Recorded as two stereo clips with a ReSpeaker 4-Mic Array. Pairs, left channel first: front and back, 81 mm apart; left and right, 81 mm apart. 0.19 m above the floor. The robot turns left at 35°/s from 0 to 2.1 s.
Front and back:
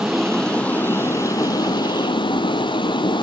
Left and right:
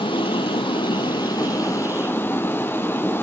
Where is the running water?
100° left, 0.9 m; by 3.2 s 25° left, 0.9 m.